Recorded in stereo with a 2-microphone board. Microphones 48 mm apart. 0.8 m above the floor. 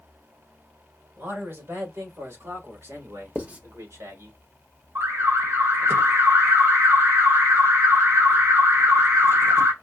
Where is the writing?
35° right (ahead or behind), 1.0 m.